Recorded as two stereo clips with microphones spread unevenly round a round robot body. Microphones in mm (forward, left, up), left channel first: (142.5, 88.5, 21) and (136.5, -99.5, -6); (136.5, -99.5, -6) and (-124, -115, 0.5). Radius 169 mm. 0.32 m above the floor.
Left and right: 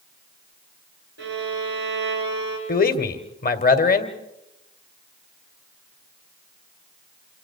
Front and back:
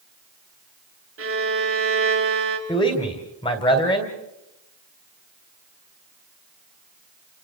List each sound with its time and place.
1.2 s a violin: 145° right, 3 m
2.7 s a man speaking: 65° left, 1.8 m